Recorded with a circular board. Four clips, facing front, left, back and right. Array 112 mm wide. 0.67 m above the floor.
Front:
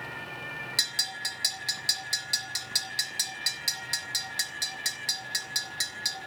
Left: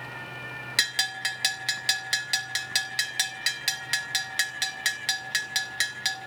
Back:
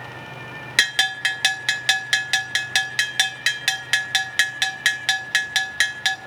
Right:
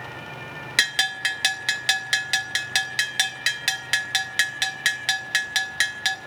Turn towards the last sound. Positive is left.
turn(degrees=-160)